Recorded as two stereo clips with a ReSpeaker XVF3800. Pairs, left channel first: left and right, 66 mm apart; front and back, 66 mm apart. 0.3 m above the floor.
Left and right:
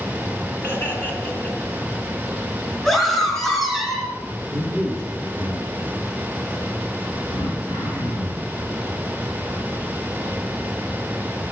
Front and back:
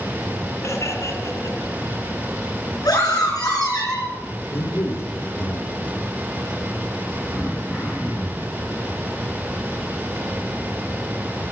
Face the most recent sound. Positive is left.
turn(degrees=95)